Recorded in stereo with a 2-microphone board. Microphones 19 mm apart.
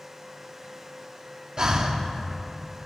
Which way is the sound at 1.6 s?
40° right (ahead or behind).